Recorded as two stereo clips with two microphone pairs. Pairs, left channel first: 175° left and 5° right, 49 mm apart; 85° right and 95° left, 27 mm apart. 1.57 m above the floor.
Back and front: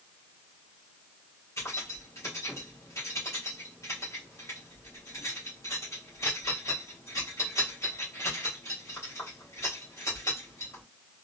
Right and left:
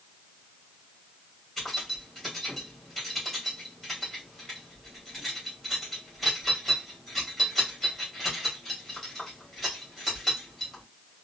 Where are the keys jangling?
165° right, 2 m.